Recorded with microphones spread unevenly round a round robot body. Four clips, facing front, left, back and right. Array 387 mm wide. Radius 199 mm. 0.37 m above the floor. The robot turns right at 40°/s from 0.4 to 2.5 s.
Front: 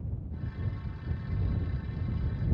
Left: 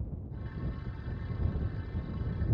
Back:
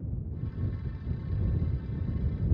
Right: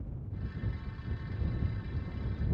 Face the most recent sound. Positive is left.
No sound to turn to.